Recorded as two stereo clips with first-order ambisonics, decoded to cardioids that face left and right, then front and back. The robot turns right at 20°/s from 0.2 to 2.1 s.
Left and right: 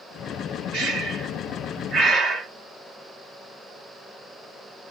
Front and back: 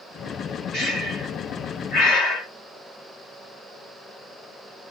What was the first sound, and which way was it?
Breathing, 65° right.